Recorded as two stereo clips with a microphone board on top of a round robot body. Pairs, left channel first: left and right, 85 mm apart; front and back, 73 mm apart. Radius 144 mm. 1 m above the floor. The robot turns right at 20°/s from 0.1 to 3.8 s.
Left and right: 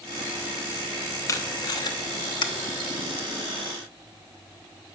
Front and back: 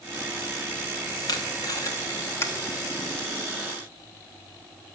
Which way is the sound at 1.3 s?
35° left.